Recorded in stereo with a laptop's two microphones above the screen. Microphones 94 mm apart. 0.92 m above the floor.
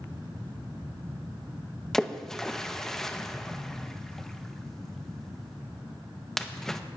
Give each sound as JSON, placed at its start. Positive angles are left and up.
{"t": 1.9, "sound": "a splash", "side_deg": 5, "distance_m": 0.5}